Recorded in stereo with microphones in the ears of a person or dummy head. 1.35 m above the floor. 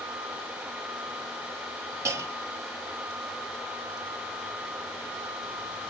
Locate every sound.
2.0 s a clunk: 20° right (ahead or behind), 0.8 m